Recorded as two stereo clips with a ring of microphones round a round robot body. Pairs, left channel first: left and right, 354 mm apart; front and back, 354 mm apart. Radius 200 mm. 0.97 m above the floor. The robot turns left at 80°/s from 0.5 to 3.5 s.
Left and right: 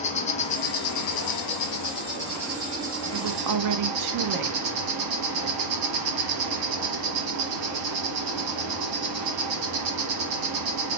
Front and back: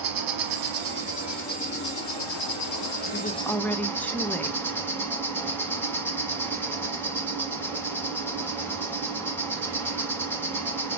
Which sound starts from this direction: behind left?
An insect, at 0.0 s.